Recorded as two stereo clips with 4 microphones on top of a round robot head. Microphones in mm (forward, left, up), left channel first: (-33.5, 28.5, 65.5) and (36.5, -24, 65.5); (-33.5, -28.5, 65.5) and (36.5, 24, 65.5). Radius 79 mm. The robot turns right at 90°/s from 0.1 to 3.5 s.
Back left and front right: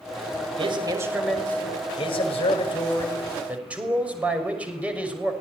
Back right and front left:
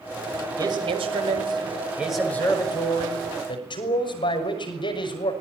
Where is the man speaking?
15° right, 6 m; by 5.3 s 110° right, 6 m.